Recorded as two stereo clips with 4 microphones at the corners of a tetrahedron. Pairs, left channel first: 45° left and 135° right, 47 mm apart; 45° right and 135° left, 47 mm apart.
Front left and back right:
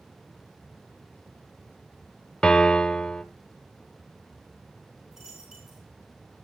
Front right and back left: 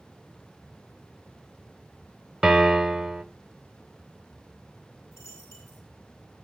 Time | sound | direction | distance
2.4 | a piano | 60° left | 0.9 m
5.1 | a dropped coin | 55° right | 6.5 m